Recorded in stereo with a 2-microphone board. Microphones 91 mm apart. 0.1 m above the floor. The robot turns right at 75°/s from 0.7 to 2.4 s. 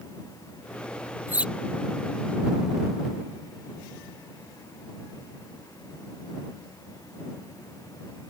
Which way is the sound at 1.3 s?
25° right (ahead or behind).